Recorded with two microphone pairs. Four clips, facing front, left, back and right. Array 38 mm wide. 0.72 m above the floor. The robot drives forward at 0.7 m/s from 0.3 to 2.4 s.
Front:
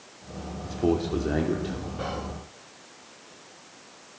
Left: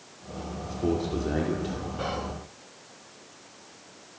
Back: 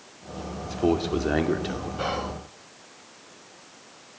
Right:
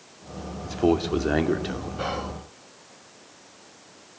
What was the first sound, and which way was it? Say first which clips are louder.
A man speaking: right 6 dB, back 1 dB; 105° right.